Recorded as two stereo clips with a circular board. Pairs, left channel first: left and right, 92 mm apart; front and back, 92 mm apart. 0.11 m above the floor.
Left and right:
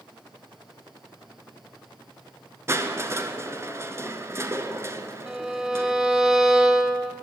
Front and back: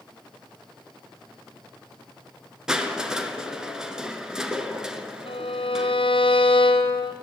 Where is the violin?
10° right, 2.0 m.